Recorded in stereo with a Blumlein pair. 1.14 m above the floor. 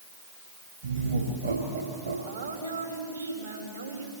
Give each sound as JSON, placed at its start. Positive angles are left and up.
{"t": 0.8, "sound": "laughter", "azimuth_deg": -55, "distance_m": 5.0}
{"t": 2.3, "sound": "a woman speaking", "azimuth_deg": -70, "distance_m": 5.5}